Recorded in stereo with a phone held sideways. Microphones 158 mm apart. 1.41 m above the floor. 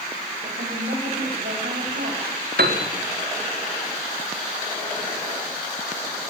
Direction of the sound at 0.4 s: 75° right (ahead or behind).